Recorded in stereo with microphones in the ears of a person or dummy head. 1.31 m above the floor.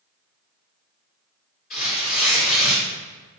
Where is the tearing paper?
25° left (ahead or behind), 1.1 m.